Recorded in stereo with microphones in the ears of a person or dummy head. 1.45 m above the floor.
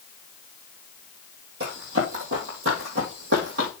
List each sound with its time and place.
1.6 s running footsteps: 55° right (ahead or behind), 2.5 m; by 3.7 s 65° right (ahead or behind), 3.5 m